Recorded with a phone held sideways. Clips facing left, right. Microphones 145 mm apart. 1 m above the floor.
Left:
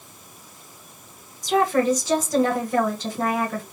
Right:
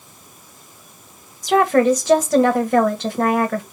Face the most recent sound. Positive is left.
turn(degrees=-65)  # may be behind; listen again after turning